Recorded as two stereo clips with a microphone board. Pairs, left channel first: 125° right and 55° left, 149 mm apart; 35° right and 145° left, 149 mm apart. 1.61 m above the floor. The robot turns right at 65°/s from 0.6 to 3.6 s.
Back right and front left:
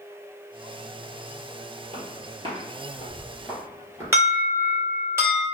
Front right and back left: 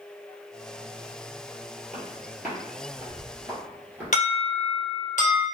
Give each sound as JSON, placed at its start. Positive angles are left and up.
{"t": 1.9, "sound": "footsteps", "azimuth_deg": 50, "distance_m": 2.0}
{"t": 4.1, "sound": "an alarm", "azimuth_deg": -15, "distance_m": 1.7}